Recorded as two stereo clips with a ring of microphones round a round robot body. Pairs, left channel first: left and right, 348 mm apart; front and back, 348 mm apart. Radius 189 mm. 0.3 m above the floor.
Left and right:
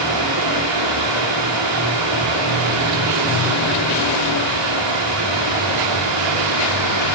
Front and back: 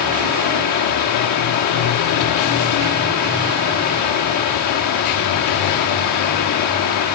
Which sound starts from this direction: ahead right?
Running water, at 0.0 s.